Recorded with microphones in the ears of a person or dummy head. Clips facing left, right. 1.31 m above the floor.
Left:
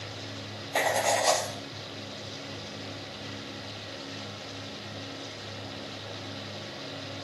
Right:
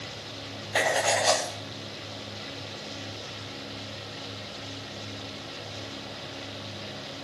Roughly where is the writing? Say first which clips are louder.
Right 1 dB; centre.